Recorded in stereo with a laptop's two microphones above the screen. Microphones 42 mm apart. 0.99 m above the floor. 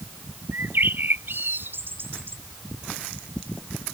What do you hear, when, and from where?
0.5 s a bird: 60° right (ahead or behind)